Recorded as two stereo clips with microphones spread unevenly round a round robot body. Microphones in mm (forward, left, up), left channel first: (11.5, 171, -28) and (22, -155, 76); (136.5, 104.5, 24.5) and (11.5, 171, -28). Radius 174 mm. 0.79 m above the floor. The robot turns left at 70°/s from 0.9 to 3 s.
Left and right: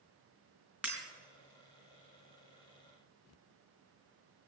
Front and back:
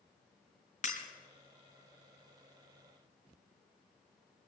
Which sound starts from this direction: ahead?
Breaking glass, at 0.8 s.